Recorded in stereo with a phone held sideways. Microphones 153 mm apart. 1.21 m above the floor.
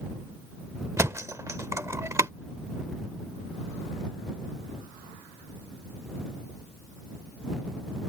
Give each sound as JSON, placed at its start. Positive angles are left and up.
{"t": 1.0, "sound": "a thud", "side_deg": -20}